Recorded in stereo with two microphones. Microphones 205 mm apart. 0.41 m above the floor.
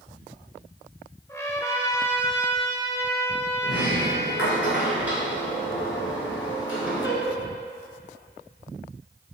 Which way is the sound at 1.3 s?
15° left (ahead or behind).